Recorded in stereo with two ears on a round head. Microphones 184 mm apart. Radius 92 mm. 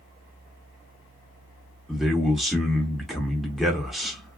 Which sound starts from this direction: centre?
A man speaking, at 1.9 s.